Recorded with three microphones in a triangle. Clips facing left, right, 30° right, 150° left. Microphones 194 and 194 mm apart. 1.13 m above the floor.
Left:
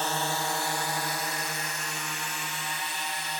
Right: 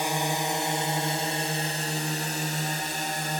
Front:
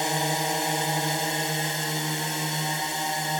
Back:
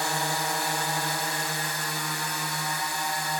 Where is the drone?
40° right; by 3.4 s 85° right.